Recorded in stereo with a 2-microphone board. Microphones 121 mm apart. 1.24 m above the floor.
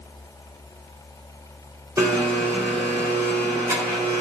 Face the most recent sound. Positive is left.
turn(degrees=-25)  # may be behind; listen again after turning